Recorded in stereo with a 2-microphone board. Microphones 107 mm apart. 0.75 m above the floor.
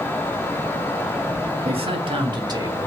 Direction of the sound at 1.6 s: 60° right (ahead or behind).